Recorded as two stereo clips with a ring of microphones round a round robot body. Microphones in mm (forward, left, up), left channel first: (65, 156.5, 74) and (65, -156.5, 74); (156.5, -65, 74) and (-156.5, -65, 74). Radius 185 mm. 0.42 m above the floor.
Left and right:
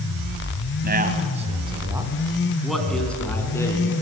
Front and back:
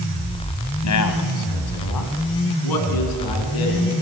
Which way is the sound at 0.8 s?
30° right.